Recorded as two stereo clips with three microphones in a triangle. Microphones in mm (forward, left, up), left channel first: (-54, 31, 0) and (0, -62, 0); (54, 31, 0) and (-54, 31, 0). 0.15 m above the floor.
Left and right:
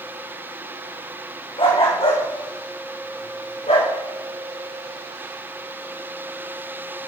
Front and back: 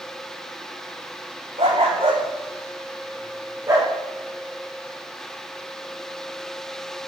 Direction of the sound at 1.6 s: 150° left.